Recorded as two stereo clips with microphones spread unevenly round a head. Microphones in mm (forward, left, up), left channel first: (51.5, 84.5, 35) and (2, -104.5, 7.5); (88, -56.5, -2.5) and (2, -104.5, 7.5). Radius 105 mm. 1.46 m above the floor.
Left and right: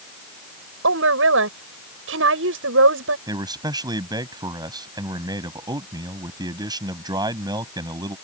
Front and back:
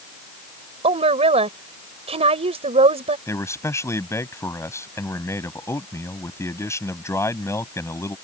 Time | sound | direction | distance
0.8 | a woman speaking | 140° right | ?
3.3 | a man speaking | 35° right | ?